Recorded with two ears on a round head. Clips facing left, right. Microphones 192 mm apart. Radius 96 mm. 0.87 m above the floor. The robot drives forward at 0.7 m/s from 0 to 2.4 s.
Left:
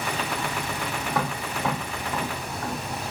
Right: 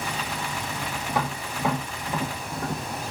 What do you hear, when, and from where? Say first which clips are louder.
1.1 s tapping: right 1 dB; 10° right (ahead or behind), 1.8 m; by 2.8 s 5° right (ahead or behind), 2.5 m